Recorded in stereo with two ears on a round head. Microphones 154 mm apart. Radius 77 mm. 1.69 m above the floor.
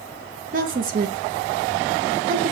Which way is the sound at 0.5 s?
50° right (ahead or behind).